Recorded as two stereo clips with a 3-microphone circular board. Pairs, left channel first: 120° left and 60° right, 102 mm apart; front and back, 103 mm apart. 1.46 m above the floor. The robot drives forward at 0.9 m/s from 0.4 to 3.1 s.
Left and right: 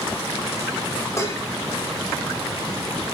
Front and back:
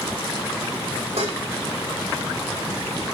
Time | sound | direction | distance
1.2 | dishes clattering | straight behind | 4.5 m